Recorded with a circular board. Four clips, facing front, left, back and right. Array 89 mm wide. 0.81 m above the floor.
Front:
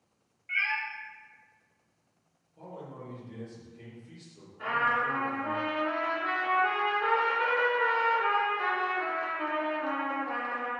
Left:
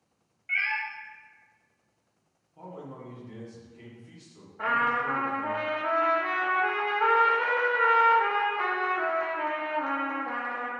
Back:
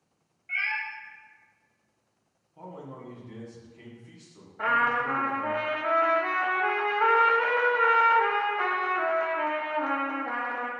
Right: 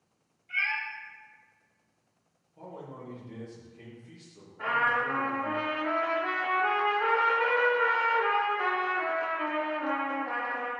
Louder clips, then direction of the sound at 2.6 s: Left 1 dB, back 2 dB; 150° left.